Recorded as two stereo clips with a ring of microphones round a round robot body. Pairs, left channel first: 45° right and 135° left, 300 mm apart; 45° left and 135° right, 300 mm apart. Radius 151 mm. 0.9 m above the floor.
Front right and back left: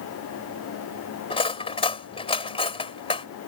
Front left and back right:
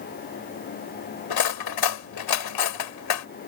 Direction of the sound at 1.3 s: 30° left.